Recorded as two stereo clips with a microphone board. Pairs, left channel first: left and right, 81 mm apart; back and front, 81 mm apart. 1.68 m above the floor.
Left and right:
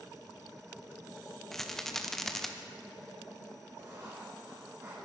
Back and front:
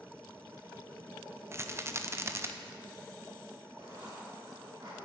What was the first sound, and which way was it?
A rattle, 5° left.